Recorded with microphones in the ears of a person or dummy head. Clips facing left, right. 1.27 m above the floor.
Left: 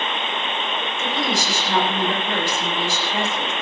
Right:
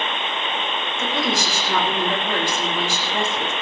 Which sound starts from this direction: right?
A woman speaking, at 1.0 s.